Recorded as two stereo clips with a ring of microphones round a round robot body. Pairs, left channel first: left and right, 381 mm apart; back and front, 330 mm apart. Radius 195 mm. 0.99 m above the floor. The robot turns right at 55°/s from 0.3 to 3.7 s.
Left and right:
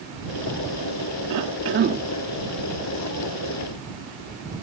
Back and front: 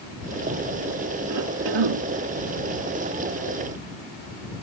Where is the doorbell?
I don't hear a doorbell.